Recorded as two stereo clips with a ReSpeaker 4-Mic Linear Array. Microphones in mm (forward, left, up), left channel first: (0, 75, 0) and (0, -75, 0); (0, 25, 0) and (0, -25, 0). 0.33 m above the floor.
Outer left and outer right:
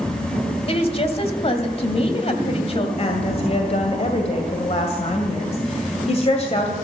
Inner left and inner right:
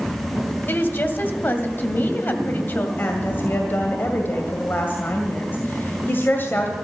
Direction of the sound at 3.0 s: 45° left (ahead or behind).